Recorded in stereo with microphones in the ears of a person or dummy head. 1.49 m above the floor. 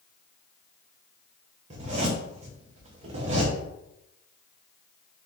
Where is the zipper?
40° right (ahead or behind), 0.9 m.